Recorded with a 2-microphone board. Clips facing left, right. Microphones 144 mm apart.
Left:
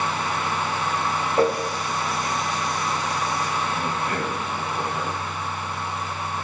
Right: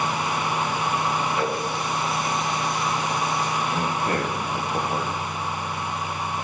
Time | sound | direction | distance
1.4 | a running tap | 40° left (ahead or behind) | 7.5 m
3.7 | a man speaking | 40° right (ahead or behind) | 9.5 m